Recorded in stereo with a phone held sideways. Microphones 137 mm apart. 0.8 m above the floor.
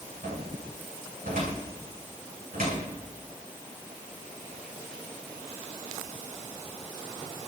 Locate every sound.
0.2 s a cupboard door: 80° right, 9.5 m